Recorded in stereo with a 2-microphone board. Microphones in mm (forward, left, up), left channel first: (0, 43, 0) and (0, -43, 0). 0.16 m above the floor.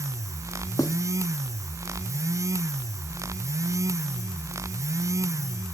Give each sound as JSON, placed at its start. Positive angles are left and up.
{"t": 0.8, "sound": "writing", "side_deg": 45, "distance_m": 0.9}